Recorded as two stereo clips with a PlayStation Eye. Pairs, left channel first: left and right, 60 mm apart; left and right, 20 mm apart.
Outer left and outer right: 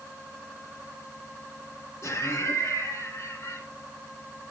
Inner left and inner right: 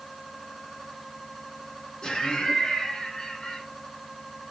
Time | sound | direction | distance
2.0 | laughter | 50° left (ahead or behind) | 2.5 m